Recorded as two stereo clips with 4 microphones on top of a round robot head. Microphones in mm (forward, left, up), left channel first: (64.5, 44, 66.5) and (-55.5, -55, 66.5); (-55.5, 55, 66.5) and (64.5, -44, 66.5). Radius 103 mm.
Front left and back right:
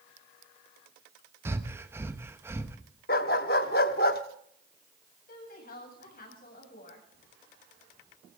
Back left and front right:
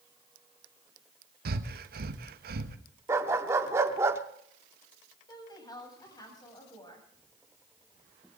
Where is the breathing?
65° right, 1.1 m.